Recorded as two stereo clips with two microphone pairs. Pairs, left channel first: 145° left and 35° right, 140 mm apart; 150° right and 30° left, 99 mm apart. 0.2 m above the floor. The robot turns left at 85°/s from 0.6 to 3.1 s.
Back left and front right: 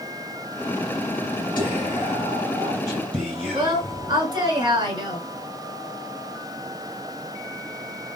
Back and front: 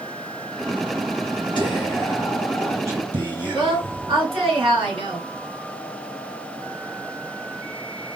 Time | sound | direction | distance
1.6 | whispering | 165° right | 2 m
3.5 | a woman speaking | 20° left | 2.5 m